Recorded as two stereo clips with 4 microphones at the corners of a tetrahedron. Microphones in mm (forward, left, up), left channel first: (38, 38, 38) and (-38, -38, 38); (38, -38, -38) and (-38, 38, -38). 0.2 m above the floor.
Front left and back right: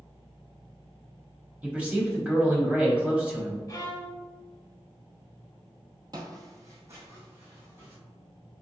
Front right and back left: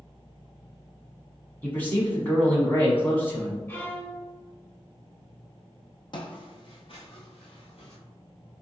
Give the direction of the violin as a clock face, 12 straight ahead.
12 o'clock.